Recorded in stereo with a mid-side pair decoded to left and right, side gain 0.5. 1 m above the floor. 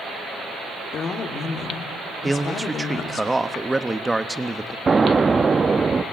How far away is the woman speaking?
About 2.5 m.